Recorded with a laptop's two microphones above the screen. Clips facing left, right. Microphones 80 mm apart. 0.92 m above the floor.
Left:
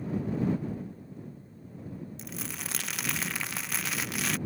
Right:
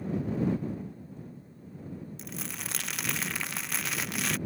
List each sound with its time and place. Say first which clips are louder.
2.2 s crumpling: even; centre (ahead or behind)